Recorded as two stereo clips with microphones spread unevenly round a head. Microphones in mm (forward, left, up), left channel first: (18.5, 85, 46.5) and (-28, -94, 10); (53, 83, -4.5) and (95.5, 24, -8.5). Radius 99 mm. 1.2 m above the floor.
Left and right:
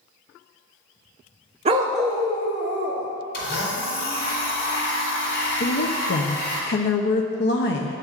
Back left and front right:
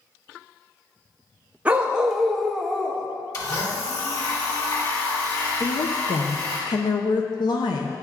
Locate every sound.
1.6 s a dog barking: 80° right, 0.5 m; by 3.1 s 50° left, 1.2 m
3.3 s a blender: 90° left, 2.5 m
5.6 s a woman speaking: 110° left, 0.6 m